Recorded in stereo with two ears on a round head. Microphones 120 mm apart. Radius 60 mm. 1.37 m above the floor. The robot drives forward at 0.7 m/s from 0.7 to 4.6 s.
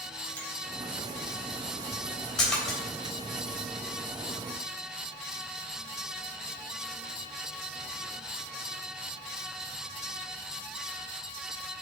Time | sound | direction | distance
0.4 | a finger snap | 10° left (ahead or behind) | 4 m
2.4 | a splash | 5° left (ahead or behind) | 3.5 m